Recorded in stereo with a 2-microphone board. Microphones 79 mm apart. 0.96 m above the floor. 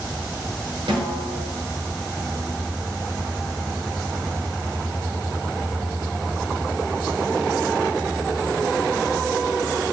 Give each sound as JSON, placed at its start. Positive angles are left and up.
{"t": 0.9, "sound": "a snare drum", "side_deg": -80, "distance_m": 8.0}